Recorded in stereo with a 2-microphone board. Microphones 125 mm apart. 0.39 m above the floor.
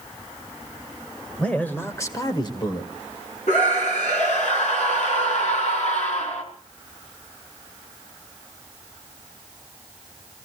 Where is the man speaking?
10° left (ahead or behind), 2.0 m; by 2.9 s 40° left (ahead or behind), 1.8 m.